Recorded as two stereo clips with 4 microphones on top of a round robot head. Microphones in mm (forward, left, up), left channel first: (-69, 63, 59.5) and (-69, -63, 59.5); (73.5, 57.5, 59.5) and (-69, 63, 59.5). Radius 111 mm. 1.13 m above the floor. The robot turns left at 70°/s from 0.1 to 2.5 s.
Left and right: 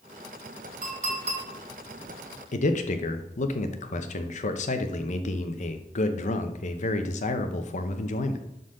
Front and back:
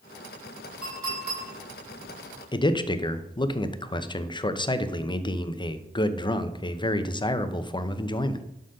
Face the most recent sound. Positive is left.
turn(degrees=55)